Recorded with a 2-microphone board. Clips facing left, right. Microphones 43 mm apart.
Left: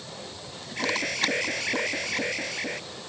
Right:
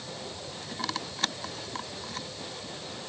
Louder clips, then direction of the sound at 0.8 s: Left 7 dB; 75° left (ahead or behind).